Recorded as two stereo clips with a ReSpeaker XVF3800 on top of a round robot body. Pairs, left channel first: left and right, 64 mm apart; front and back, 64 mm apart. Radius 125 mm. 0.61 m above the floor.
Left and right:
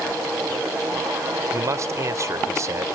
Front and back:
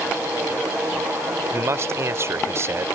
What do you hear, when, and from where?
1.5 s a man speaking: 130° right